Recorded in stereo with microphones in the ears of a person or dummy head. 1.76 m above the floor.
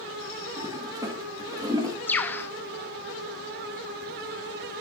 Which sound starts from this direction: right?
A toilet flushing, at 0.6 s.